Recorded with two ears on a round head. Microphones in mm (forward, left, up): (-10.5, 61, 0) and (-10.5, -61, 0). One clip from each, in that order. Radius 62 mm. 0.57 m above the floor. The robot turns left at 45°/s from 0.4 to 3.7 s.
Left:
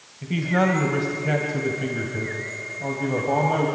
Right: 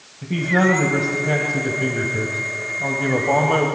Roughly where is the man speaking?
Left.